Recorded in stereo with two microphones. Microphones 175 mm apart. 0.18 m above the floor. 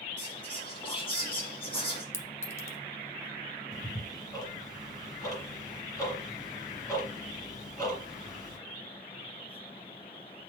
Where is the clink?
15° left (ahead or behind), 0.6 m.